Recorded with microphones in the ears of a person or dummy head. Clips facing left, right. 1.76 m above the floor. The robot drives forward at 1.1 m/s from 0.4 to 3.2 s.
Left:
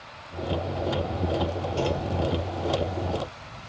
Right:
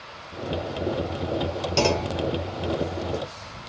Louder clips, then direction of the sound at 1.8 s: Right 5 dB; 80° right.